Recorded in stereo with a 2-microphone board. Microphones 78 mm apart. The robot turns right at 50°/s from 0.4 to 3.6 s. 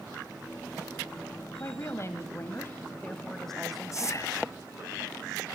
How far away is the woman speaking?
About 1.3 m.